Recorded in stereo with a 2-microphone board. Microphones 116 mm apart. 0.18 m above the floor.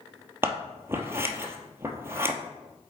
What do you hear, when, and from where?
0.4 s scissors: 20° right (ahead or behind), 0.9 m